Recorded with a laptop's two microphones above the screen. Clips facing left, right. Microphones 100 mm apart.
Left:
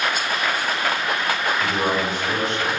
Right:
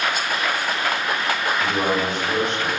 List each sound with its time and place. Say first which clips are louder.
1.6 s a man speaking: right 1 dB; 65° right (ahead or behind), 1.5 m